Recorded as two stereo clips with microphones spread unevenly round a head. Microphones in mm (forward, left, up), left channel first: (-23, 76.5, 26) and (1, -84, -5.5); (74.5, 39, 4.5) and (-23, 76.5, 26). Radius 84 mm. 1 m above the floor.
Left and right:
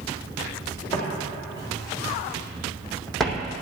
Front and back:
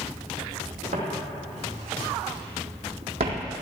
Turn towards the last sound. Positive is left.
turn(degrees=-170)